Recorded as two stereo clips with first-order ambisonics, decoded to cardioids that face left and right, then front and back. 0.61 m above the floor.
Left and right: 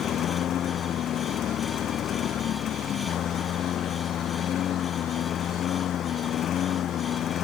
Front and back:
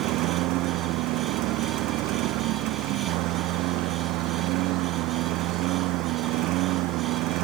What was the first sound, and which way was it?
A lawn mower, 145° left.